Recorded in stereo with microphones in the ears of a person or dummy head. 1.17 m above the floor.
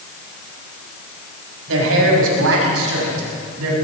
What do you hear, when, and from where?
1.7 s a man speaking: 80° right, 7 m; by 3.7 s 90° right, 8.5 m